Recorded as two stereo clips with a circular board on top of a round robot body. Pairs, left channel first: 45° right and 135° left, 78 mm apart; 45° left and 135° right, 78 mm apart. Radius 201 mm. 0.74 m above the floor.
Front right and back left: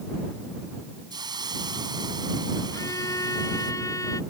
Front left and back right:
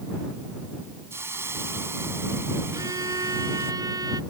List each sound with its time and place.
1.1 s a hiss: 165° left
2.7 s a violin: 95° right